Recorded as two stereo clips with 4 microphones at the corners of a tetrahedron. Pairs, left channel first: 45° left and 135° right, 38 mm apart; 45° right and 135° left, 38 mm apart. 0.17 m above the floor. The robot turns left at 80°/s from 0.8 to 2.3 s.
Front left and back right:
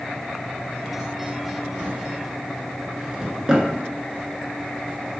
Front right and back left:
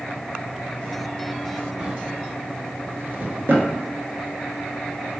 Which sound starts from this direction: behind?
A drawer, at 1.8 s.